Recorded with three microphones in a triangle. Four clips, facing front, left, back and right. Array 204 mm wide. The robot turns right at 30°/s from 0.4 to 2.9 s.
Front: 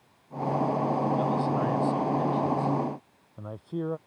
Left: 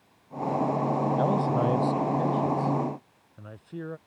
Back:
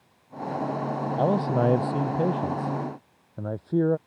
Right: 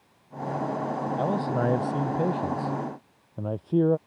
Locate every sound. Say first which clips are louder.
1.2 s a man speaking: right 1 dB, back 3 dB; straight behind; by 4.0 s 130° right